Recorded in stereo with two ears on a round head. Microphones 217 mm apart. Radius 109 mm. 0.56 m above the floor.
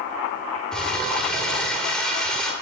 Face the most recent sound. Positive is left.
turn(degrees=5)  # may be behind; listen again after turning